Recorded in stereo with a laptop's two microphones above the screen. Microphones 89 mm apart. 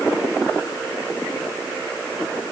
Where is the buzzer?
No buzzer in this recording.